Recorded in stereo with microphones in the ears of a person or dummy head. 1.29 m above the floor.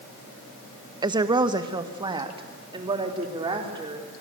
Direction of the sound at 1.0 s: 20° right (ahead or behind).